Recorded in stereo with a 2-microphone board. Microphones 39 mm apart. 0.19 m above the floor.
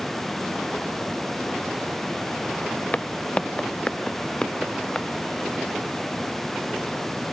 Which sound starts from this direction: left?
Footsteps, at 2.9 s.